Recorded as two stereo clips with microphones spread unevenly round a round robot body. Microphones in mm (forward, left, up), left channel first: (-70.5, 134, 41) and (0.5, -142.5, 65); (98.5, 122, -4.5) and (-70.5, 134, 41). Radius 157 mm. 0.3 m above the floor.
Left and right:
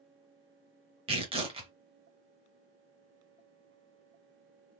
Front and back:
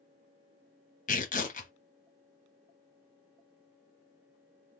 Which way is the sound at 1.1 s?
5° right.